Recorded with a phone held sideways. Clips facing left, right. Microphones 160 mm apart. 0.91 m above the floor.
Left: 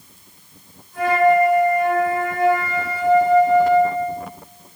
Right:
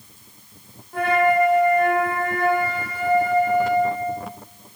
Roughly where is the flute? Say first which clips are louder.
Left 3 dB; right.